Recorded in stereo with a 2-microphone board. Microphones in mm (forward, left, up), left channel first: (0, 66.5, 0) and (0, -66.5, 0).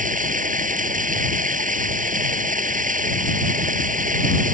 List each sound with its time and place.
0.0 s running water: 80° right